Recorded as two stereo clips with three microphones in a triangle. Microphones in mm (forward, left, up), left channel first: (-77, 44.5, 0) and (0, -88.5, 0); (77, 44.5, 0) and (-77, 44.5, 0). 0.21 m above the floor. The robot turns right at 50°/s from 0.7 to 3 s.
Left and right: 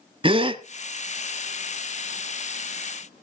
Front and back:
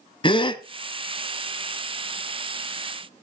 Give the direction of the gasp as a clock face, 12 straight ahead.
1 o'clock.